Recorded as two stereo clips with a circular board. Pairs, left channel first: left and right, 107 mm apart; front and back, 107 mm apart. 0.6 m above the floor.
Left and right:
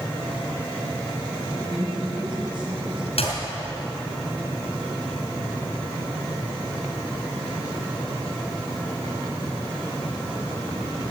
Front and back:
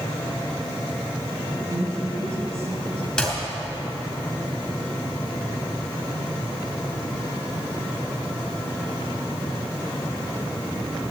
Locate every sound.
1.5 s a woman speaking: 120° right, 4.5 m
3.2 s a clap: 80° left, 4.5 m